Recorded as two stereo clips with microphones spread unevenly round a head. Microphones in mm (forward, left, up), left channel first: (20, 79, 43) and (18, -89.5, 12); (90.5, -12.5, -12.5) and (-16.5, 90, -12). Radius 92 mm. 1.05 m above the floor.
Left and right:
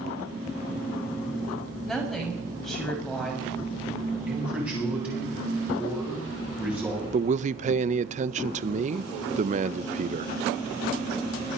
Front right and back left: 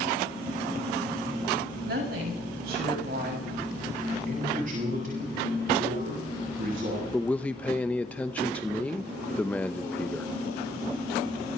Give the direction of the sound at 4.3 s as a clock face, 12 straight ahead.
6 o'clock.